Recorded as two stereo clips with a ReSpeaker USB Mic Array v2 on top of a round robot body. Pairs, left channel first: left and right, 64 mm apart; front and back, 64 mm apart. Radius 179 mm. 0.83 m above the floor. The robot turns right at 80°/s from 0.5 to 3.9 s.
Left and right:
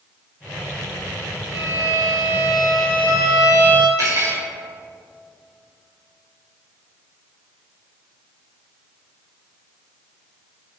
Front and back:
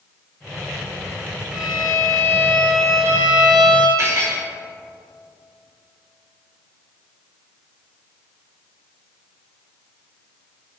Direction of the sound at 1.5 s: 105° left.